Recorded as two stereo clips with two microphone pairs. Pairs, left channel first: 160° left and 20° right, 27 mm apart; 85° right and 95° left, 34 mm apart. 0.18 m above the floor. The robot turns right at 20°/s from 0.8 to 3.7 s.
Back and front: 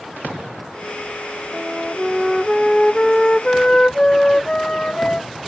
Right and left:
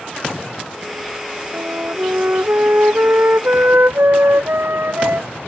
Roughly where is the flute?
Ahead left.